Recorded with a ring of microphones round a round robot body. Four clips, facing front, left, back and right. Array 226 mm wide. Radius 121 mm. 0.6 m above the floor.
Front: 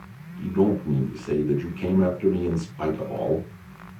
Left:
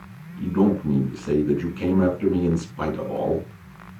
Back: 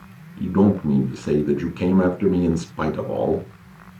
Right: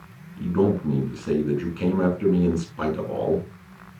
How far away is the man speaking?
About 5.5 m.